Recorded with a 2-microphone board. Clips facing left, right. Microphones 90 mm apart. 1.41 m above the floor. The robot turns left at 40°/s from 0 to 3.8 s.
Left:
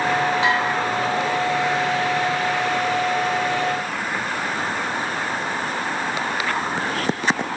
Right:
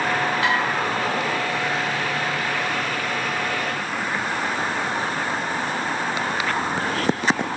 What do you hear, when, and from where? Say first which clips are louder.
0.4 s dishes clattering: left 1 dB; 25° left (ahead or behind), 3 m; by 0.6 s 30° left (ahead or behind), 3 m